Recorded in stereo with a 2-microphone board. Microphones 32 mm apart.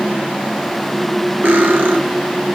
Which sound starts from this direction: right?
Cutlery clinking, at 1.4 s.